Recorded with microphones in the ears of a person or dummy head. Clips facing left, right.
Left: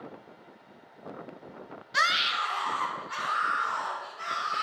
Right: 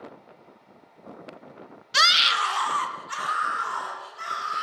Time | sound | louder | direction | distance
1.9 | a scream | right 4 dB | 45° right (ahead or behind) | 0.7 m